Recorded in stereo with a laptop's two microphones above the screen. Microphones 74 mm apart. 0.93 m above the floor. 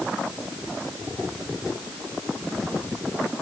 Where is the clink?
No clink in this recording.